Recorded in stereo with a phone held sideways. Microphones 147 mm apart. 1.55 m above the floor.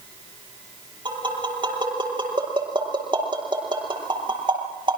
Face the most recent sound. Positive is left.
turn(degrees=-35)  # may be behind; listen again after turning